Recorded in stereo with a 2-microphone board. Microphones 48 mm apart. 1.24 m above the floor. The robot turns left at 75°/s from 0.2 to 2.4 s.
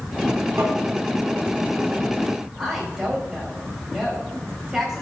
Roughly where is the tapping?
Right.